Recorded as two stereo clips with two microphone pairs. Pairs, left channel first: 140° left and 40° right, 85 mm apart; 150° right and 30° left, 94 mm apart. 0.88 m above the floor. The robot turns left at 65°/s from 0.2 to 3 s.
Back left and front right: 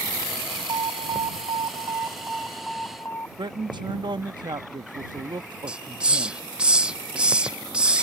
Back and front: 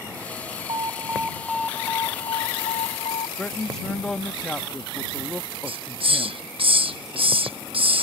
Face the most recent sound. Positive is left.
turn(degrees=35)